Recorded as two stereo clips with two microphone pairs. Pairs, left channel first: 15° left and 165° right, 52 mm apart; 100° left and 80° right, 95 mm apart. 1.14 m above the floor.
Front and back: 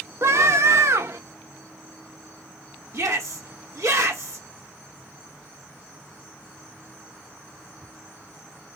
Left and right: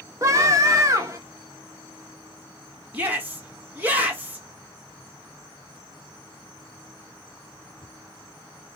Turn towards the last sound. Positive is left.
turn(degrees=-150)